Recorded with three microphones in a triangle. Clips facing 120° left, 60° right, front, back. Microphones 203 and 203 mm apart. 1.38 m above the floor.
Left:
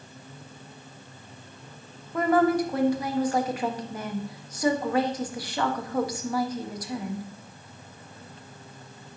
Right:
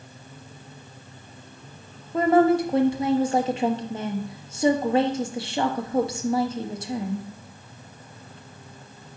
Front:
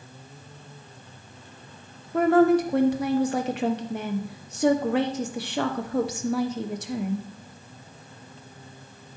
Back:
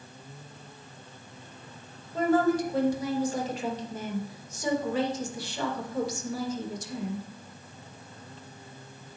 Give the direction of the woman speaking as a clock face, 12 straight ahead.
12 o'clock.